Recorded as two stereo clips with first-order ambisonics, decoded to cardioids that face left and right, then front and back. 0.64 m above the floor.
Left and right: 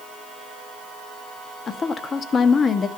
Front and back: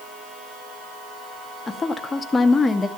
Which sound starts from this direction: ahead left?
A woman speaking, at 1.7 s.